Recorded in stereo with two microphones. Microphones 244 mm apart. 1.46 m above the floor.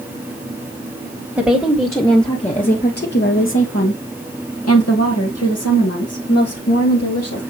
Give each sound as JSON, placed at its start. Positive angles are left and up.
{"t": 1.4, "sound": "a woman speaking", "side_deg": -5, "distance_m": 1.4}